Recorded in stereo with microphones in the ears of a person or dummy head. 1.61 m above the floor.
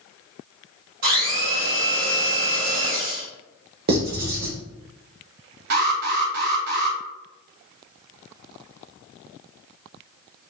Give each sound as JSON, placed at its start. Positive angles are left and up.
{"t": 1.0, "sound": "a blender", "side_deg": -50, "distance_m": 1.9}
{"t": 3.9, "sound": "writing", "side_deg": -55, "distance_m": 1.0}
{"t": 5.7, "sound": "an alarm", "side_deg": -50, "distance_m": 0.9}